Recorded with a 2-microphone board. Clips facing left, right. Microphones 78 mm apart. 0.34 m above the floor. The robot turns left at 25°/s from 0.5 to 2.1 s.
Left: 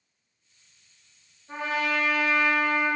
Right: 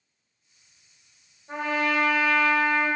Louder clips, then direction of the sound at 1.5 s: Right 2 dB; 35° right (ahead or behind).